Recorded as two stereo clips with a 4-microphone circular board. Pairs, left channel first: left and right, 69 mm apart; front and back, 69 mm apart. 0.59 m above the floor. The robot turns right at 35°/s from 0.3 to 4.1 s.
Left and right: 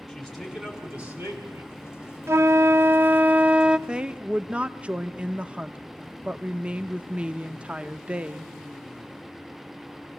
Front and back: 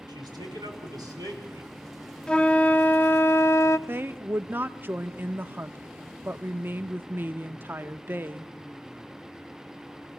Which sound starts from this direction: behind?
A man speaking, at 0.1 s.